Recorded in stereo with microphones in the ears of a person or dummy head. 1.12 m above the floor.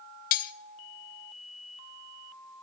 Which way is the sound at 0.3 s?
50° left (ahead or behind).